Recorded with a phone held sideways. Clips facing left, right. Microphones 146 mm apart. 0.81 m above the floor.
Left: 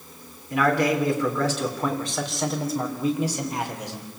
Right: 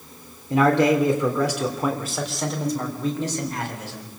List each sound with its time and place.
0.5 s a man speaking: 30° right (ahead or behind), 3 m; by 4.1 s 20° left (ahead or behind), 4 m